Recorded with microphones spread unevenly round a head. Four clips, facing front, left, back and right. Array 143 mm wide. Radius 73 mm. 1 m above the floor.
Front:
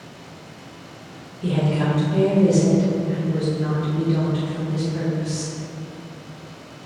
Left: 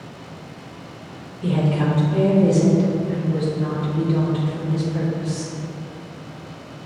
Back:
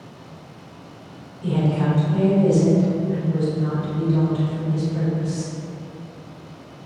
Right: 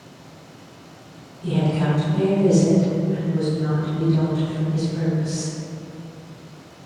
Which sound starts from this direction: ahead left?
A woman speaking, at 1.4 s.